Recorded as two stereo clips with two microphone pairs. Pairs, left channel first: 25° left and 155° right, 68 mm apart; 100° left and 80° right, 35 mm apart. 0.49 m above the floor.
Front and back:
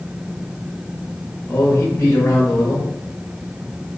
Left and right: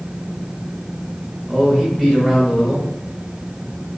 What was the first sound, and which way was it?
A man speaking, 5° left.